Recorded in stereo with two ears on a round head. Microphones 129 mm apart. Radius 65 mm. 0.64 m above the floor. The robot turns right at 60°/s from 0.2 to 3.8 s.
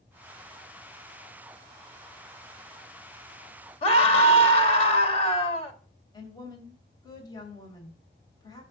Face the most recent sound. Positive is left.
turn(degrees=25)  # may be behind; listen again after turning